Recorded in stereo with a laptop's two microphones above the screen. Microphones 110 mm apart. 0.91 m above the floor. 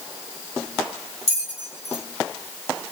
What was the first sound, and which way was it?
A bell, 65° left (ahead or behind).